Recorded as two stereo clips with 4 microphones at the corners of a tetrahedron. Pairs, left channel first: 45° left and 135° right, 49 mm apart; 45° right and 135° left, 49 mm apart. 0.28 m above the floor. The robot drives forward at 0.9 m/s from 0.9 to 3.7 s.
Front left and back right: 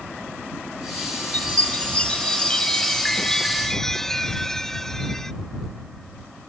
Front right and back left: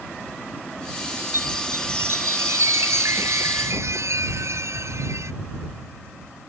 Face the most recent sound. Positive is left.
turn(degrees=125)